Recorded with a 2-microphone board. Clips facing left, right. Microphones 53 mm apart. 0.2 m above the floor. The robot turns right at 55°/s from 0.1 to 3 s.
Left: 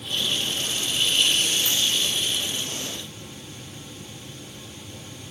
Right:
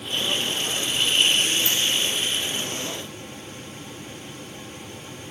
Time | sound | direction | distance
1.6 | a dropped coin | 45° left (ahead or behind) | 0.5 m